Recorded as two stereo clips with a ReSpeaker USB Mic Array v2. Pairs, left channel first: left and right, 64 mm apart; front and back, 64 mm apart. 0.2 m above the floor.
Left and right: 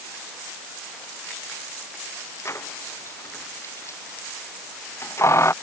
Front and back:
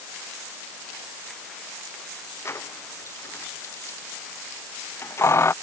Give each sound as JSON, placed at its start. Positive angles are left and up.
{"t": 2.5, "sound": "keys jangling", "azimuth_deg": 45}